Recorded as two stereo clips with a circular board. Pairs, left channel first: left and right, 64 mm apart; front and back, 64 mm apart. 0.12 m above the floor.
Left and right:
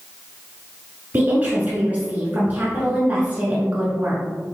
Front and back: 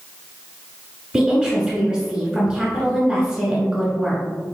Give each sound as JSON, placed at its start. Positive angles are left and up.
{"t": 1.1, "sound": "a woman speaking", "azimuth_deg": -115, "distance_m": 1.2}